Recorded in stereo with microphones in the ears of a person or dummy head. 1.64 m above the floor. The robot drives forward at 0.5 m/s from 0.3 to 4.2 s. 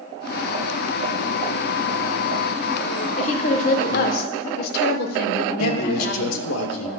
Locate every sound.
3.2 s a woman speaking: 40° left (ahead or behind), 1.2 m; by 6.4 s 65° left (ahead or behind), 0.8 m
5.6 s a man speaking: 85° left, 1.3 m